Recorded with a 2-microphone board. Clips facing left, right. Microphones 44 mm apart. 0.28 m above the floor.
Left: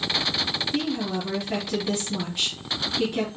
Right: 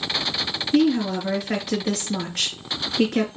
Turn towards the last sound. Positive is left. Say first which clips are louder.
# right 10 dB
turn(degrees=-70)  # may be behind; listen again after turning